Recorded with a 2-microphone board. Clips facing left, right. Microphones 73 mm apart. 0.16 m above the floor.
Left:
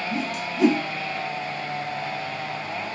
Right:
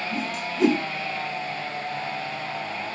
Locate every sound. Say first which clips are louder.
0.1 s a whoosh: left 1 dB; 5° left (ahead or behind), 0.5 m